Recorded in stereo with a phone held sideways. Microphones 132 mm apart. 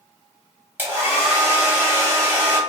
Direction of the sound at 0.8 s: 15° right (ahead or behind).